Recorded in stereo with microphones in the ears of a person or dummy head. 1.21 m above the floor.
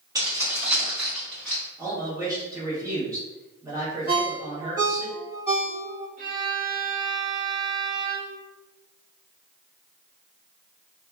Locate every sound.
0.1 s keys jangling: 20° right (ahead or behind), 1.1 m; by 1.6 s 15° left (ahead or behind), 1.7 m
1.8 s a man speaking: 15° right (ahead or behind), 1.1 m
4.1 s a ringtone: 15° right (ahead or behind), 1.3 m
6.2 s a violin: 45° right (ahead or behind), 0.8 m